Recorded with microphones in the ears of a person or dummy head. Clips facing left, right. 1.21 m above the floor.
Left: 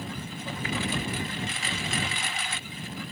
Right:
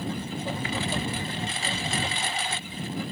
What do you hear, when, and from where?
0.0 s a lawn mower: 30° right (ahead or behind)